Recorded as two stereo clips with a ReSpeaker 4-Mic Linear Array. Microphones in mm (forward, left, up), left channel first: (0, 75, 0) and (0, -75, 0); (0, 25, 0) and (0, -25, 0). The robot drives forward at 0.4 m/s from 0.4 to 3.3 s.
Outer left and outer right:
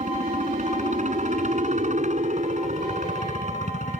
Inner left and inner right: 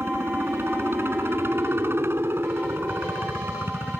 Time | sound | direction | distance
0.0 | a helicopter | 55° right (ahead or behind) | ?